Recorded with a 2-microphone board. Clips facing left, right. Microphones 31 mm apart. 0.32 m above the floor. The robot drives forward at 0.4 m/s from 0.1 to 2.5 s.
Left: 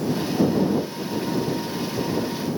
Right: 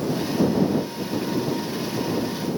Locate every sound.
Only background noise.